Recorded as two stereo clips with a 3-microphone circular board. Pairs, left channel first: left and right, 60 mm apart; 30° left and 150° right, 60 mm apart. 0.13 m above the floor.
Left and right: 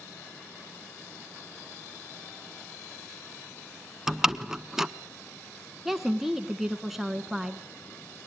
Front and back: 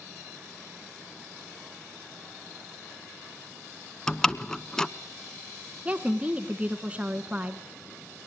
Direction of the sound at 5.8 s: 170° right.